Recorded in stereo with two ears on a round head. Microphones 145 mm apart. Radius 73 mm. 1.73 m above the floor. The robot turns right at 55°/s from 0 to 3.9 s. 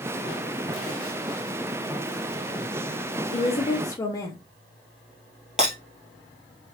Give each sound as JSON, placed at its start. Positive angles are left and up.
{"t": 3.3, "sound": "a woman speaking", "azimuth_deg": 120, "distance_m": 0.6}
{"t": 5.6, "sound": "breaking glass", "side_deg": -5, "distance_m": 1.8}